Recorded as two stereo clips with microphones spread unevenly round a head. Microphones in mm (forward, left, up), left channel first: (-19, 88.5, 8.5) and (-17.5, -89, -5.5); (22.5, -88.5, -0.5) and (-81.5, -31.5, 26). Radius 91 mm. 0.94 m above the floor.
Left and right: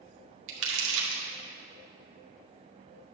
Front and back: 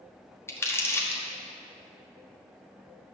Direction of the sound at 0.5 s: 95° right.